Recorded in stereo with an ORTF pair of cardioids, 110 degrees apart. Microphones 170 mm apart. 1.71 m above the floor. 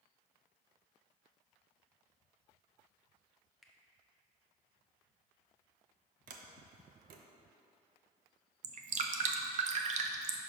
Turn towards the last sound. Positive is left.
turn(degrees=-50)